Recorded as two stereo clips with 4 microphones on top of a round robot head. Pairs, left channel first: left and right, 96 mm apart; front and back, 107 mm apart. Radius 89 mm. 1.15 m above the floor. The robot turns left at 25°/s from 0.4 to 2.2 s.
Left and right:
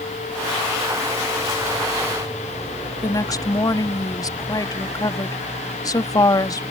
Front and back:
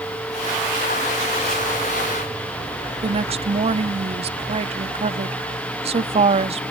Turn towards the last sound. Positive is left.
turn(degrees=145)